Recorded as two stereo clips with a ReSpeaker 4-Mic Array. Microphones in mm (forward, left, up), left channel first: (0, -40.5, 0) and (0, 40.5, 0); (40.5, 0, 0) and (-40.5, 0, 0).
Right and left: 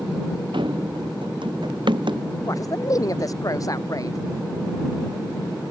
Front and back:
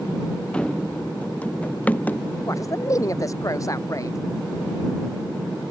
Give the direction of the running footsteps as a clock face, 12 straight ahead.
9 o'clock.